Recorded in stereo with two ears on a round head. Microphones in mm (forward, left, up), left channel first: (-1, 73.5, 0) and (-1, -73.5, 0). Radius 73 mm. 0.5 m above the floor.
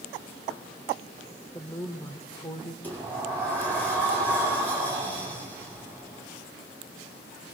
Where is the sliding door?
10° left (ahead or behind), 8 m.